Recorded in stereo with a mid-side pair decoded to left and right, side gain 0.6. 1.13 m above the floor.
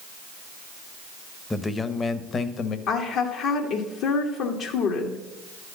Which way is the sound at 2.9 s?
65° left.